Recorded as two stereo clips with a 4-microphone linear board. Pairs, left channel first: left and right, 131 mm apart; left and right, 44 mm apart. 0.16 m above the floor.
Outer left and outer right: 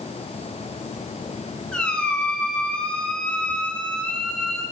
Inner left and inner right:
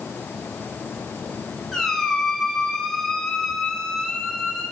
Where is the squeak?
5° left (ahead or behind), 1.2 m.